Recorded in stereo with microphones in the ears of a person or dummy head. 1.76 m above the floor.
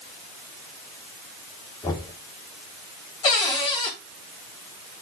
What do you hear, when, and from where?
1.8 s knocking: 25° left (ahead or behind), 3.5 m
3.2 s a cupboard door: 25° left (ahead or behind), 4.5 m